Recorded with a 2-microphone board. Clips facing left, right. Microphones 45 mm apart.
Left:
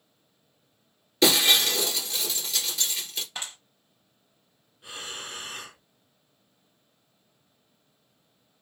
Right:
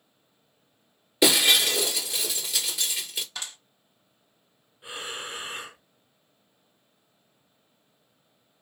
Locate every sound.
1.2 s breaking glass: 10° right (ahead or behind), 1.4 m
3.4 s a clap: 25° left (ahead or behind), 1.7 m
4.8 s breathing: 20° right (ahead or behind), 0.5 m